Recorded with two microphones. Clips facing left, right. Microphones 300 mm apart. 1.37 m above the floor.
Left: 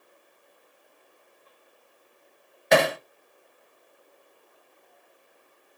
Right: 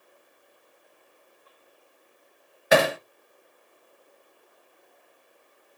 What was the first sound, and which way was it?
Hammering, 5° right (ahead or behind).